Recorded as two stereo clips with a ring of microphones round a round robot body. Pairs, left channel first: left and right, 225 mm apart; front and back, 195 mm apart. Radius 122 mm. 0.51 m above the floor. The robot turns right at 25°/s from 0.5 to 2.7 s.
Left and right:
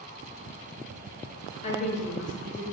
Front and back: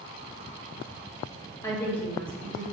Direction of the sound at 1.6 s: 65° left.